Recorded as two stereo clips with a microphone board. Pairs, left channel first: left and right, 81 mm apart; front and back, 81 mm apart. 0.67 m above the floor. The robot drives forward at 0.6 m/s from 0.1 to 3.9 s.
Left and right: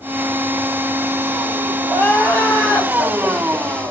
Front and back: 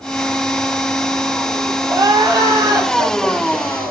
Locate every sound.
1.9 s crying: 145° left, 2.5 m; by 3.9 s 155° left, 3.5 m